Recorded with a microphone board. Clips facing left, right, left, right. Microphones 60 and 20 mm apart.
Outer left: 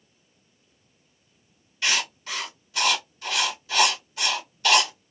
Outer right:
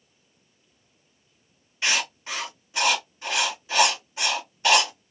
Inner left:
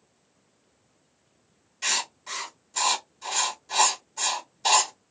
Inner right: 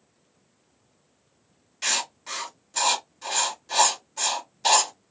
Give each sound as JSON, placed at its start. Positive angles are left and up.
{"t": 1.8, "sound": "writing", "side_deg": -25, "distance_m": 1.2}